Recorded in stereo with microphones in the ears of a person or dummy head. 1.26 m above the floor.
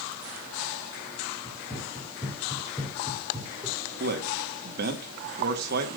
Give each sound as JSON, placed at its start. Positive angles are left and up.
{"t": 1.4, "sound": "running footsteps", "side_deg": 5, "distance_m": 3.0}
{"t": 4.0, "sound": "a man speaking", "side_deg": -55, "distance_m": 1.8}